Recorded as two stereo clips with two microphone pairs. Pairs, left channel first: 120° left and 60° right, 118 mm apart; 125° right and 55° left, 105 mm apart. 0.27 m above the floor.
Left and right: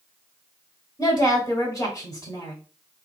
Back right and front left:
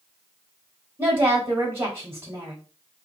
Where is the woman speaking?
95° left, 1.3 m.